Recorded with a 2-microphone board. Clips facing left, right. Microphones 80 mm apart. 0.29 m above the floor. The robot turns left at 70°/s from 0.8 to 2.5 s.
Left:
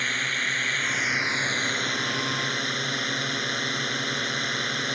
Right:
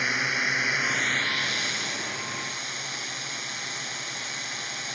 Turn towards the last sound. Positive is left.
turn(degrees=70)